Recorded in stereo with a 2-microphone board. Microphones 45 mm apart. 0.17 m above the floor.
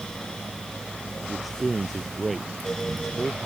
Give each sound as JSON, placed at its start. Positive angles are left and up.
{"t": 1.2, "sound": "a man speaking", "side_deg": 0}